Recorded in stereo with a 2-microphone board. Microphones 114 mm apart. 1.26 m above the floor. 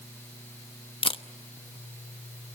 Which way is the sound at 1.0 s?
50° left (ahead or behind).